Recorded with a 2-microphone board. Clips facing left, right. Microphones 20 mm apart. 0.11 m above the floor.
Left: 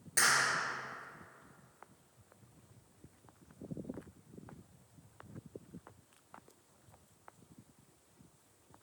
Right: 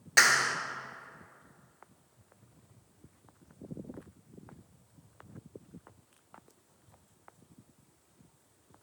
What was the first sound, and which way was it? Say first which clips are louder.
A clap: right 6 dB; 40° right (ahead or behind).